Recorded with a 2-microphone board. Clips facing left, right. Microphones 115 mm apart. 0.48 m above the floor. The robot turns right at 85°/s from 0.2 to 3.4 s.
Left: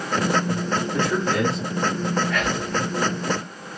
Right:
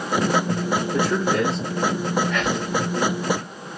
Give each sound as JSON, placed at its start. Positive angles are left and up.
{"t": 0.9, "sound": "a man speaking", "azimuth_deg": -55, "distance_m": 0.8}
{"t": 2.3, "sound": "whispering", "side_deg": -20, "distance_m": 1.1}